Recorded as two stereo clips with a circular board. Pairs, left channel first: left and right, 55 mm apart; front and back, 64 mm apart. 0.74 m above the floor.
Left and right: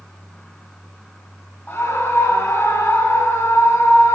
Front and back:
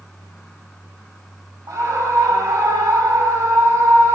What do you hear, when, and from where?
1.7 s a scream: 150° left, 4.5 m